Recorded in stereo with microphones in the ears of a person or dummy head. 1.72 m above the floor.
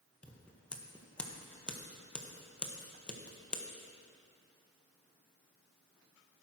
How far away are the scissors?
About 1.4 m.